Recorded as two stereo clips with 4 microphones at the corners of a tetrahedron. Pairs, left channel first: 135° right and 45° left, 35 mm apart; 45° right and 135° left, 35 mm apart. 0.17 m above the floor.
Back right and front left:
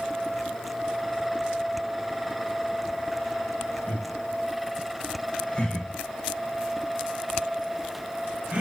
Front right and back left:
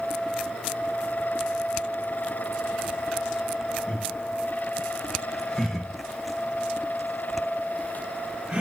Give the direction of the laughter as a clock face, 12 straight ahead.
3 o'clock.